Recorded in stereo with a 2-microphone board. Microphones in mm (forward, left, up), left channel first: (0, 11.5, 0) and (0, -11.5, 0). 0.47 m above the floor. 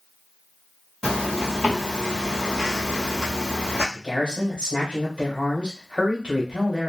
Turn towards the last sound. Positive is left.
turn(degrees=-60)  # may be behind; listen again after turning